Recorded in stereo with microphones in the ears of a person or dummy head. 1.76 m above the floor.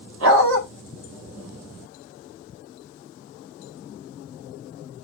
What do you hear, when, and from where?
0.2 s a dog barking: 60° right (ahead or behind), 2 m